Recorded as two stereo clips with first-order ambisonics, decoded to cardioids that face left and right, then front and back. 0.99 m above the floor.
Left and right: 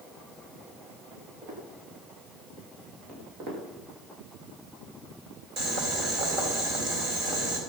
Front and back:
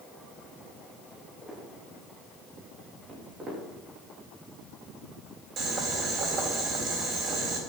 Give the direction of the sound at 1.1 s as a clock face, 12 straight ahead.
3 o'clock.